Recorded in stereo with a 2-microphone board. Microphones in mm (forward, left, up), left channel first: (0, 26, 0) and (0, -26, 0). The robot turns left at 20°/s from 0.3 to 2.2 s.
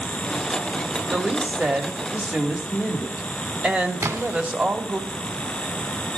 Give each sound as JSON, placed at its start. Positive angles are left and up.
{"t": 1.1, "sound": "a woman speaking", "side_deg": -25, "distance_m": 1.4}
{"t": 4.0, "sound": "a splash", "side_deg": -45, "distance_m": 2.5}